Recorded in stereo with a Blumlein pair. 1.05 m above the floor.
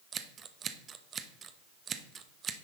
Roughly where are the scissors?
Ahead right.